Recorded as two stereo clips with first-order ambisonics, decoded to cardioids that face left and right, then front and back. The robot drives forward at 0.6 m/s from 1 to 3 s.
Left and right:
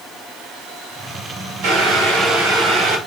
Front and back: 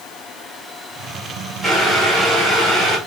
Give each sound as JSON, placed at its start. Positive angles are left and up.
{"t": 1.6, "sound": "boiling", "azimuth_deg": -100, "distance_m": 1.9}